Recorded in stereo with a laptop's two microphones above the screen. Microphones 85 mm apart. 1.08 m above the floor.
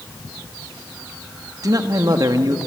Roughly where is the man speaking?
Right.